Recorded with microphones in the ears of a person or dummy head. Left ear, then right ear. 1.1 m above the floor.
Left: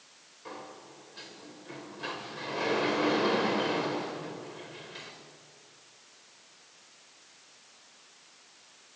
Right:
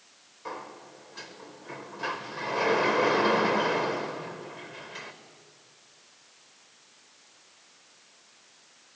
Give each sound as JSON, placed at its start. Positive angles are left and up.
{"t": 0.5, "sound": "a sliding door", "side_deg": -35, "distance_m": 1.5}